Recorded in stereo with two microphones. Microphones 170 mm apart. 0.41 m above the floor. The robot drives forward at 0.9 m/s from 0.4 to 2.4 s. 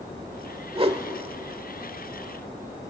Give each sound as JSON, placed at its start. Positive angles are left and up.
{"t": 0.8, "sound": "a whoosh", "side_deg": -30, "distance_m": 1.2}